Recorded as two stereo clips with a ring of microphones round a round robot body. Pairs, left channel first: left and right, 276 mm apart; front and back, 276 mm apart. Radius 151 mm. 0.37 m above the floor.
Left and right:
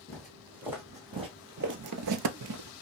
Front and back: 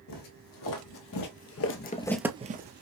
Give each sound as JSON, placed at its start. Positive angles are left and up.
{"t": 0.1, "sound": "footsteps", "azimuth_deg": 0, "distance_m": 1.8}